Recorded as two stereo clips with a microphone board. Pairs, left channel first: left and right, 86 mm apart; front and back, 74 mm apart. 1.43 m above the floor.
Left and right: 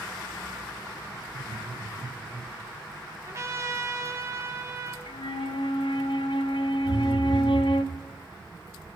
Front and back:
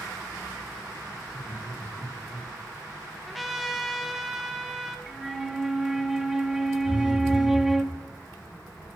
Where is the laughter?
115° right, 4 m; by 2.5 s 135° right, 4 m.